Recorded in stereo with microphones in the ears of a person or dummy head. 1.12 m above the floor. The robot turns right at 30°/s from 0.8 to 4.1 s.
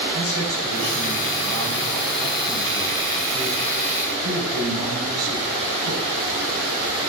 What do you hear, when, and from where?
0.1 s a man speaking: 125° left, 7.5 m; by 6.0 s 135° right, 7.5 m